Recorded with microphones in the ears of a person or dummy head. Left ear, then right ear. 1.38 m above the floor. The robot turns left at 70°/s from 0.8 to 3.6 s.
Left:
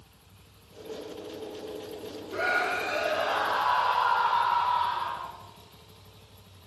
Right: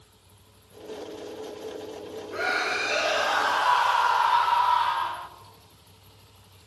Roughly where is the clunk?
I don't hear a clunk.